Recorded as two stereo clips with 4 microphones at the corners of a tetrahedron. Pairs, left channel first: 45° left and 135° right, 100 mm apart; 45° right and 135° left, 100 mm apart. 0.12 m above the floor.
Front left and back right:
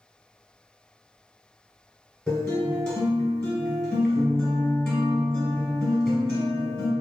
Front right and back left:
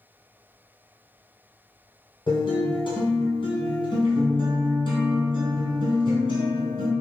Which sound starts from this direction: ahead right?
A guitar, at 2.3 s.